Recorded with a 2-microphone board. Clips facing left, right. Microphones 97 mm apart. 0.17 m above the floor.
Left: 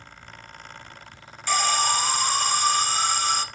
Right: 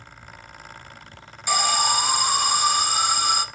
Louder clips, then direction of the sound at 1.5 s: Right 1 dB; 10° right (ahead or behind).